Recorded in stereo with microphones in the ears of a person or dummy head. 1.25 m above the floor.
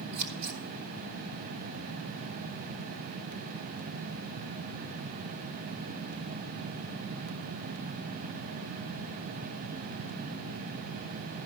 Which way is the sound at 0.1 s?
50° right (ahead or behind).